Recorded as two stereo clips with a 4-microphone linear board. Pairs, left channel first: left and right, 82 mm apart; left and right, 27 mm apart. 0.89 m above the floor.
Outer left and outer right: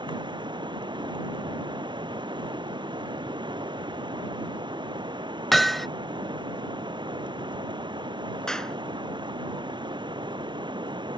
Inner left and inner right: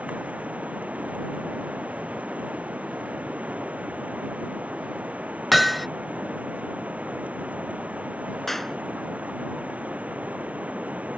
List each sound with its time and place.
0.0 s running water: 75° right (ahead or behind)
5.5 s hammering: centre (ahead or behind)
8.5 s a clap: 5° left (ahead or behind)